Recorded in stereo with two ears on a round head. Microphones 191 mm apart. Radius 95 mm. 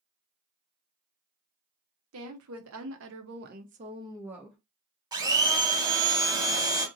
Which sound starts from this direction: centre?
A blender, at 5.1 s.